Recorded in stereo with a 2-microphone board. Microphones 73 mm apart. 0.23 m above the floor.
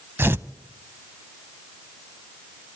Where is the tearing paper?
35° right (ahead or behind), 0.5 m.